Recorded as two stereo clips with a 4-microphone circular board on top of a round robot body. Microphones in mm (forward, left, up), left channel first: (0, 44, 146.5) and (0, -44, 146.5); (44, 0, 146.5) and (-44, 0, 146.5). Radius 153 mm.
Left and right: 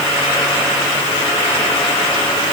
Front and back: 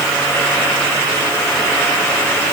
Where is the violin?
I don't hear a violin.